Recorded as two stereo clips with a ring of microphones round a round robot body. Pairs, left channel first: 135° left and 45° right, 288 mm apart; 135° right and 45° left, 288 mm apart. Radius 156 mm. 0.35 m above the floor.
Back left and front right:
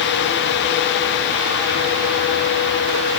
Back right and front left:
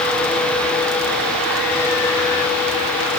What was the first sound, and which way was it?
Only background noise.